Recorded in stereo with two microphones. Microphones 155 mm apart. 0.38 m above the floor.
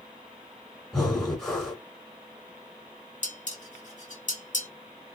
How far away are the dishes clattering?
About 1.2 m.